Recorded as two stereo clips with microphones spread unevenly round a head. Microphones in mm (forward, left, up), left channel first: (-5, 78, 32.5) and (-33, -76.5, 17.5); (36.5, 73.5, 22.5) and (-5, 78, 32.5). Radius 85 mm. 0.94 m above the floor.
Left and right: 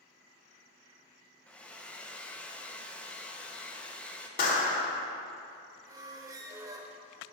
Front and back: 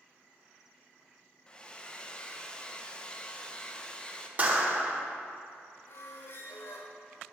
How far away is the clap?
About 2 m.